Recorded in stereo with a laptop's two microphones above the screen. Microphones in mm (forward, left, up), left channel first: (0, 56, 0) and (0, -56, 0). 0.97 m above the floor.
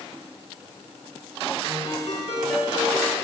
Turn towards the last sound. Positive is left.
turn(degrees=70)  # may be behind; listen again after turning